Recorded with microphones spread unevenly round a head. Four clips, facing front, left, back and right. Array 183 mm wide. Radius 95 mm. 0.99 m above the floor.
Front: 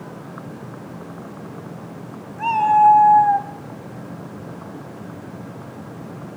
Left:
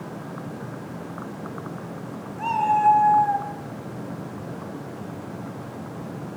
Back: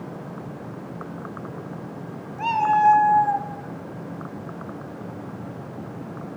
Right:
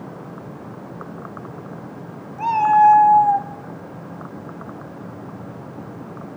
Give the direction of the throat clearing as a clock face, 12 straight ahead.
I don't hear throat clearing.